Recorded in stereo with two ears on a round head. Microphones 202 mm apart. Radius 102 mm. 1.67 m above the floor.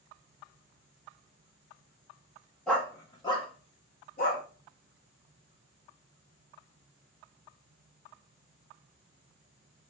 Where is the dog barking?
5° left (ahead or behind), 1.1 m; by 4.4 s 45° left (ahead or behind), 1.4 m.